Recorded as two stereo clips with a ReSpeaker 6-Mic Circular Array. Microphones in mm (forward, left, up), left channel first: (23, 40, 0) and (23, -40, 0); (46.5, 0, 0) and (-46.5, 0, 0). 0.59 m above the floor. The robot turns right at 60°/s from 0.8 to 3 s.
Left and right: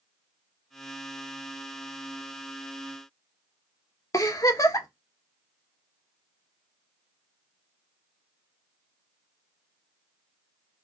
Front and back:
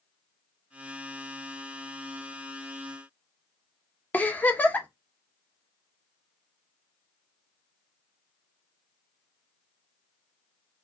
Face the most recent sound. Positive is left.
turn(degrees=65)